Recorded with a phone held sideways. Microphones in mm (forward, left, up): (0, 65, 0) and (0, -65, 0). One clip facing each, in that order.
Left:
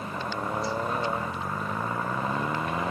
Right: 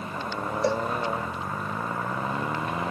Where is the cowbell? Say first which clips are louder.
Right 10 dB; 75° right (ahead or behind).